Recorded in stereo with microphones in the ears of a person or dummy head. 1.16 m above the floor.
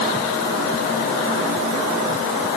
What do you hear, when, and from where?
Only background noise.